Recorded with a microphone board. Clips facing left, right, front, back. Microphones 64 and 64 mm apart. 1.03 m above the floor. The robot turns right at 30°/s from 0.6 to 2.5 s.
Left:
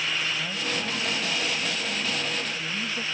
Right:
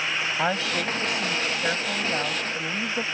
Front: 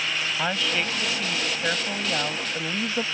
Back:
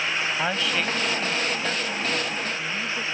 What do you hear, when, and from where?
0.4 s a woman speaking: 95° right; by 3.0 s 35° right